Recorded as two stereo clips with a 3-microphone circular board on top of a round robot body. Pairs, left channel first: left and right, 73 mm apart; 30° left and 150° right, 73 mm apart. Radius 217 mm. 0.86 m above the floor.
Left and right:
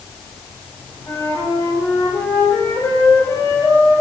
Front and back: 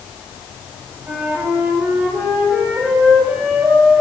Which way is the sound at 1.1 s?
140° left.